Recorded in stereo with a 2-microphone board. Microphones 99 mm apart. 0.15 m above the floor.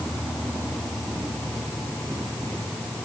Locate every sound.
Only background noise.